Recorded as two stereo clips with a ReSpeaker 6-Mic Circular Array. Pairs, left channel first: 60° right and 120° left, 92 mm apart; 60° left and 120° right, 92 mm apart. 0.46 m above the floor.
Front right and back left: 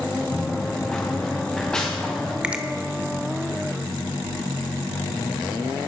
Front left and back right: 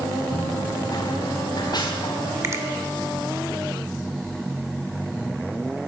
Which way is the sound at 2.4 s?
165° right.